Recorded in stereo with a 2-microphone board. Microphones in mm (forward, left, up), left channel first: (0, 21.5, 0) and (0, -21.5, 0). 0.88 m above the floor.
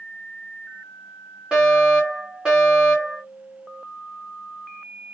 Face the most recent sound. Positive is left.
turn(degrees=-15)  # may be behind; listen again after turning